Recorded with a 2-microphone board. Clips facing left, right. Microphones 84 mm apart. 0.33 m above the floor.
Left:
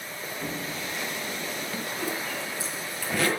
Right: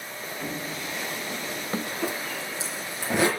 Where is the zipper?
20° right (ahead or behind), 9 m.